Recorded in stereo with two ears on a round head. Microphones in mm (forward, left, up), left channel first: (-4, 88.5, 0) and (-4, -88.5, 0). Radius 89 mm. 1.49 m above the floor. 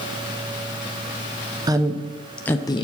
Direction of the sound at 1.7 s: 20° right (ahead or behind).